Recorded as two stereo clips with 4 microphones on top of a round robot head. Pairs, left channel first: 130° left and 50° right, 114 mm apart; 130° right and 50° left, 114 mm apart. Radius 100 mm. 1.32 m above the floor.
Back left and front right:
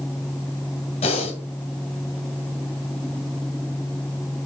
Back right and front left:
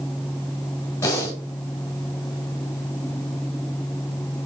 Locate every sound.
1.0 s breathing: 160° left, 1.6 m